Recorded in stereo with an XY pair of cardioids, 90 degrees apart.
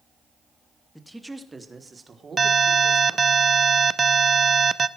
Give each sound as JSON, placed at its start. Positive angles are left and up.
{"t": 0.9, "sound": "a man speaking", "azimuth_deg": 5, "distance_m": 2.0}
{"t": 2.4, "sound": "an alarm", "azimuth_deg": -35, "distance_m": 0.7}